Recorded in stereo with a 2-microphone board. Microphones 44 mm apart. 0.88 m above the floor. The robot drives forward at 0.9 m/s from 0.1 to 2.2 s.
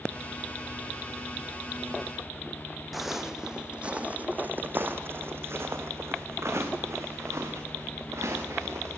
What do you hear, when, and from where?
2.9 s footsteps: centre (ahead or behind), 2 m; by 9.0 s 80° right, 5 m